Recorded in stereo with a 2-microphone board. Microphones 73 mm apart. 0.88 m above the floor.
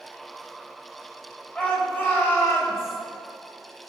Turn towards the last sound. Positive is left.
turn(degrees=40)  # may be behind; listen again after turning